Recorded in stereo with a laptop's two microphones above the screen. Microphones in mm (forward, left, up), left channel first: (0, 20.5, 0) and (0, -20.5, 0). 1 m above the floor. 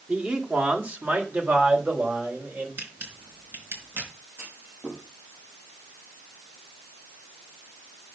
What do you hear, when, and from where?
0.1 s a man speaking: 35° right (ahead or behind), 2.5 m; by 2.7 s 55° right (ahead or behind), 4.5 m
2.8 s a camera shutter: 60° right (ahead or behind), 4.5 m
4.4 s a clunk: 75° right (ahead or behind), 5 m